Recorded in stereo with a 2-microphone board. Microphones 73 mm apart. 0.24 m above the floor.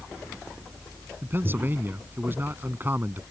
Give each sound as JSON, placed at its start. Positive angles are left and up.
{"t": 1.2, "sound": "a man speaking", "side_deg": -30}